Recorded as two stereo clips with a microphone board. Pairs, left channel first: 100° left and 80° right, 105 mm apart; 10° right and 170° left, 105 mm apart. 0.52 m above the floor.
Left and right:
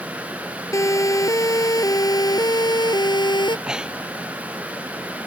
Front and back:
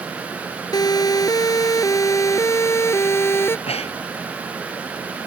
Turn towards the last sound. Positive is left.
turn(degrees=5)